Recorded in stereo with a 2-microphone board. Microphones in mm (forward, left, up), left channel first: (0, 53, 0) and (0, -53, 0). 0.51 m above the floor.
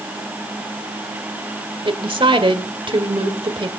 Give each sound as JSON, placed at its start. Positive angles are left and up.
{"t": 1.9, "sound": "a woman speaking", "side_deg": -55, "distance_m": 1.6}